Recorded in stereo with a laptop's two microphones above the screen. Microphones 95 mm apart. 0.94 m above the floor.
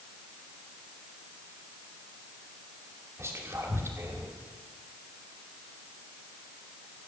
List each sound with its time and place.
3.2 s whispering: 30° right (ahead or behind), 2.5 m